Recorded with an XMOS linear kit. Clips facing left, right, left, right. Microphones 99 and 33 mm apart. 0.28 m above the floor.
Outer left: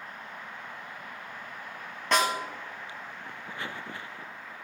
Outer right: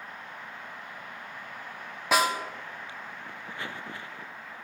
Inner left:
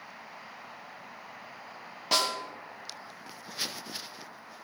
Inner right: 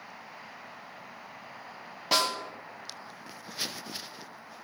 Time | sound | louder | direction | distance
2.1 | a snare drum | outer right 1 dB, inner right 1 dB | 5° right (ahead or behind) | 1.8 m